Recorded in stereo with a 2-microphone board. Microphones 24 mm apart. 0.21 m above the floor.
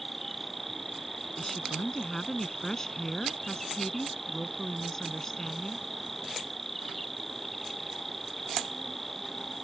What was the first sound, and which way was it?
An insect, 10° left (ahead or behind).